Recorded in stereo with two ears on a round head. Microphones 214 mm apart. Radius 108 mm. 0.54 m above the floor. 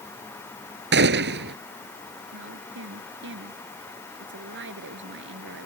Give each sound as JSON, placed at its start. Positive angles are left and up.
{"t": 0.9, "sound": "a gunshot", "side_deg": -50}
{"t": 2.3, "sound": "a woman speaking", "side_deg": -55}